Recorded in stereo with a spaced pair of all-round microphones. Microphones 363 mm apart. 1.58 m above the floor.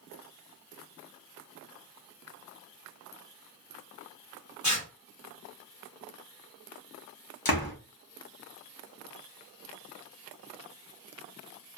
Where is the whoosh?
I don't hear a whoosh.